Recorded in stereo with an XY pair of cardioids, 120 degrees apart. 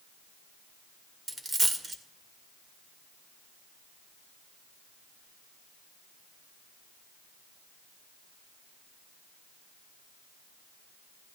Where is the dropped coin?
25° right, 2 m.